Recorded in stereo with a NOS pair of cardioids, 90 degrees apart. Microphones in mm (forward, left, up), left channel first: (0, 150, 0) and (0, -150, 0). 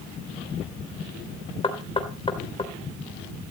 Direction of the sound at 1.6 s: 20° left.